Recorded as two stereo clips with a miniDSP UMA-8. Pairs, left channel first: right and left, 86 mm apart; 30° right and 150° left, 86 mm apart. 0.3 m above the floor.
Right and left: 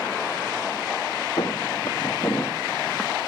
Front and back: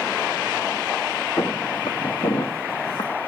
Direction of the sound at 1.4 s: 60° right.